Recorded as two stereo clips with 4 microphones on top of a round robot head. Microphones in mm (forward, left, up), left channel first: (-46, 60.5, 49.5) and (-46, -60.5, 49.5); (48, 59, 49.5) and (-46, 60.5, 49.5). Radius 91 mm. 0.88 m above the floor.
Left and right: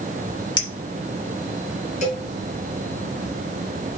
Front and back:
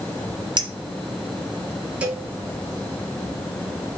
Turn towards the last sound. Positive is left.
turn(degrees=105)